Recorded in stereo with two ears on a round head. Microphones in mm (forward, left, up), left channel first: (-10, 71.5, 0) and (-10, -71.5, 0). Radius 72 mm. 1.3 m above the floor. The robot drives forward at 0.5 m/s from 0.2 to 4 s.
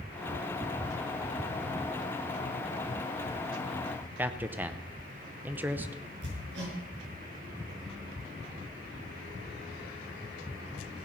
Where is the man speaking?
10° right (ahead or behind), 0.7 m.